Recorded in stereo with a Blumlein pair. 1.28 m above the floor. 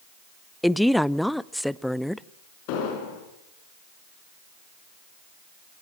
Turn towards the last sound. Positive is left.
turn(degrees=45)